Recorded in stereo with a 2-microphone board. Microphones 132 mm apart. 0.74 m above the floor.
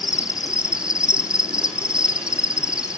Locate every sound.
0.0 s an insect: 5° right (ahead or behind), 0.9 m